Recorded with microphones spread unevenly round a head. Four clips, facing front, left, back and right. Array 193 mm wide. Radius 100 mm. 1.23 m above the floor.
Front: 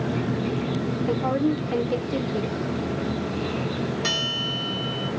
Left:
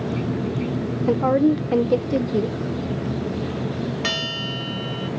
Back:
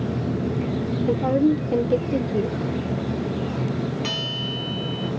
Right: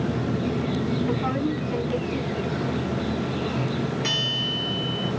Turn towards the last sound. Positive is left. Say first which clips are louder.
# left 2 dB, even
turn(degrees=65)